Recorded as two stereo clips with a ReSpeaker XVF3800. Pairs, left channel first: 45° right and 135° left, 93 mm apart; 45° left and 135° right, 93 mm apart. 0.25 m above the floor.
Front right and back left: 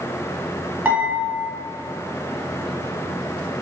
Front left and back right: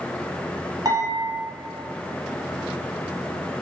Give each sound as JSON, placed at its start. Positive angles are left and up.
{"t": 0.8, "sound": "dishes clattering", "azimuth_deg": -155, "distance_m": 1.2}